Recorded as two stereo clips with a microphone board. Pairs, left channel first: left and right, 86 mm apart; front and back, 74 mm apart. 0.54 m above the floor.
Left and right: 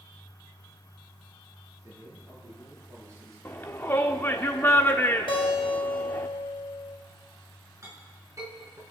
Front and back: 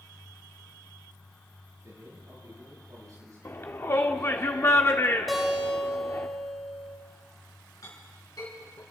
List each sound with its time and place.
1.8 s a man speaking: 140° right, 8 m; by 4.5 s 145° right, 6 m
3.5 s a shout: 40° left, 0.9 m
5.3 s a guitar: 90° left, 3 m
7.8 s a clink: 35° right, 5.5 m